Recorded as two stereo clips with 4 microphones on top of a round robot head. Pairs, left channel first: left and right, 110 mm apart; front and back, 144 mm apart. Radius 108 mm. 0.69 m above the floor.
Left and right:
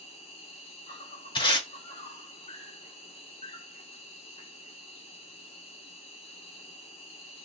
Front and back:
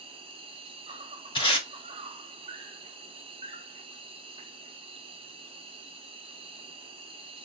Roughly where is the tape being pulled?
Ahead left.